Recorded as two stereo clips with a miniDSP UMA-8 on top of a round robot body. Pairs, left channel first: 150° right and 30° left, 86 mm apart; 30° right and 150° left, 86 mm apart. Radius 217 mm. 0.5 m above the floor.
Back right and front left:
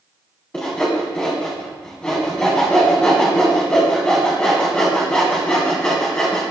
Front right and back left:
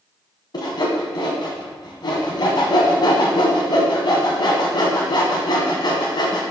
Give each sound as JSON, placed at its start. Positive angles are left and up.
{"t": 0.5, "sound": "sawing", "azimuth_deg": -70, "distance_m": 0.8}